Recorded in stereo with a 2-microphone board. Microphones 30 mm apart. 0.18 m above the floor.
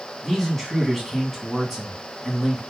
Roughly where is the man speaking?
Centre.